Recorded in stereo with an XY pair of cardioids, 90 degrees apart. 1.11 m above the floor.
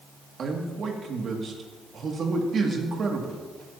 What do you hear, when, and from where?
0.4 s a man speaking: 55° right, 2.5 m